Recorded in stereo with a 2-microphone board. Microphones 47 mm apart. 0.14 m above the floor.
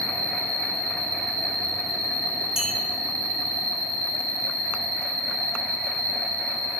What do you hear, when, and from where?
0.0 s an insect: 15° left (ahead or behind), 1.2 m
2.6 s a clink: 20° right (ahead or behind), 0.6 m